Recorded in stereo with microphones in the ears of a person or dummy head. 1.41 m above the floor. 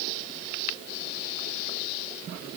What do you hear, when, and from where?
Only background noise.